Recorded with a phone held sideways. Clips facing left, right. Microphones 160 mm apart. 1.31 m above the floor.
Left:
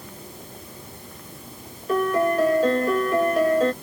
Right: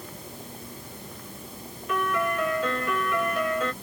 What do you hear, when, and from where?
1.9 s a piano: 40° left (ahead or behind)